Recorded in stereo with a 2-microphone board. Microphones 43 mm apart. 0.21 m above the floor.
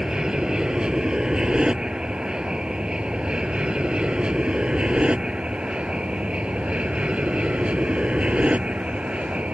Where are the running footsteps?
No running footsteps in this recording.